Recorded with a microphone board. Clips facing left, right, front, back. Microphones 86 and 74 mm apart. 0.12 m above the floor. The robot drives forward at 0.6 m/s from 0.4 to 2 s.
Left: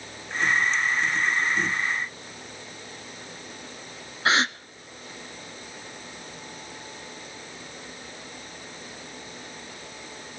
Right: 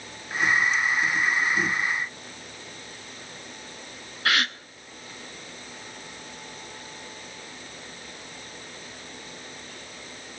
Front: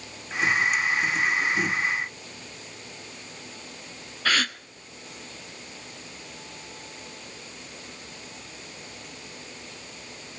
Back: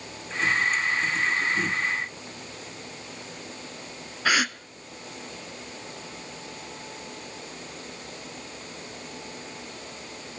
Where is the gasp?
115° left, 0.5 m.